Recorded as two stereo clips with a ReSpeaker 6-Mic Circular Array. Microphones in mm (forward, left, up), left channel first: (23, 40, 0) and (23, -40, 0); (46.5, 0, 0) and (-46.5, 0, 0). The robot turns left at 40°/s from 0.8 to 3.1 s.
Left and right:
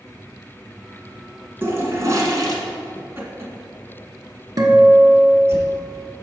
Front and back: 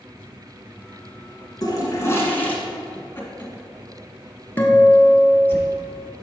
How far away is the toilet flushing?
About 1.1 m.